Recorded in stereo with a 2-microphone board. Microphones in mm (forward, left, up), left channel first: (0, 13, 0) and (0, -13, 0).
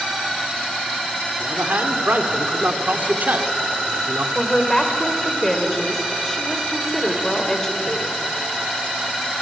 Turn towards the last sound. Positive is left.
turn(degrees=15)  # may be behind; listen again after turning